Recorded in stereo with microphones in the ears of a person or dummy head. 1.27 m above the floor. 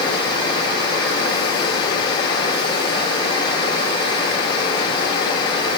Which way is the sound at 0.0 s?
35° left (ahead or behind).